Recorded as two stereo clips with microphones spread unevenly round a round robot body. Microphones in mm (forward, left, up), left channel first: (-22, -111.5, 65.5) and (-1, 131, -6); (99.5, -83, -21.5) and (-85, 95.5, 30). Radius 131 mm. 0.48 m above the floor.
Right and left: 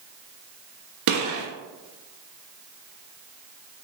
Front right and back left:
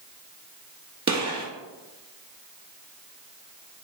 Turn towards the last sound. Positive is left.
turn(degrees=70)